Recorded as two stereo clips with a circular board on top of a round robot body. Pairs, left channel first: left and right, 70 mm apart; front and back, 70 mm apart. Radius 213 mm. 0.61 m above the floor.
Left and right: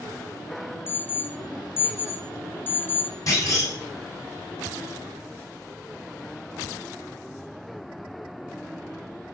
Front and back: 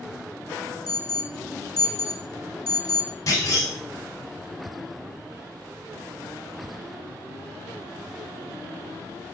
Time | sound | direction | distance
0.9 | an alarm | 30° left | 1.1 m
3.3 | a clunk | 45° left | 2.5 m